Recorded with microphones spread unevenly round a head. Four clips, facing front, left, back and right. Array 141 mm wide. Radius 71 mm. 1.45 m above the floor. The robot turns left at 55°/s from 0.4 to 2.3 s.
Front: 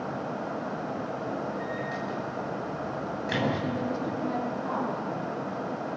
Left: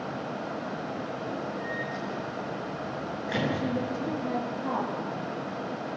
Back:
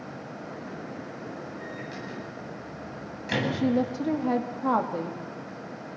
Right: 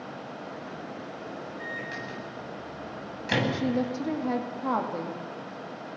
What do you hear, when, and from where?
1.6 s a microwave: 60° right, 9.5 m; by 3.4 s 100° right, 9.5 m
3.5 s a woman speaking: 165° right, 3 m